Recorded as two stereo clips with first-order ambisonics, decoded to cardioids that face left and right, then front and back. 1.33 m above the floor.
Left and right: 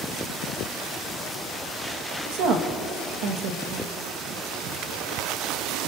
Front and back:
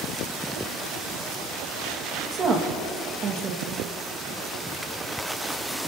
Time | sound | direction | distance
2.3 | a woman speaking | 115° right | 2 m